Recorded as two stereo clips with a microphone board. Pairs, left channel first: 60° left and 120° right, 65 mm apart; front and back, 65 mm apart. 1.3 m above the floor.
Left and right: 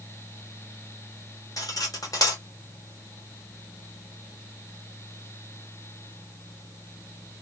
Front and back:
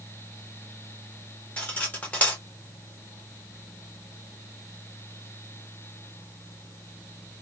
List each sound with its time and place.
1.6 s cutlery clinking: 65° left, 0.8 m